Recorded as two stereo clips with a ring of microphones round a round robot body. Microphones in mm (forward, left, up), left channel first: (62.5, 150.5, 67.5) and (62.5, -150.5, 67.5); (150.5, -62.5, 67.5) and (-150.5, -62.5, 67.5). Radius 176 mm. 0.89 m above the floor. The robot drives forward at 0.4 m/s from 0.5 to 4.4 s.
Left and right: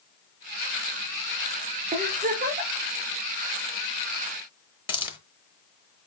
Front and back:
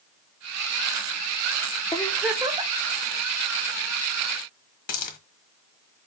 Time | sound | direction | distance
1.9 | a giggle | 55° right | 0.5 m
4.9 | a hiss | 35° left | 0.6 m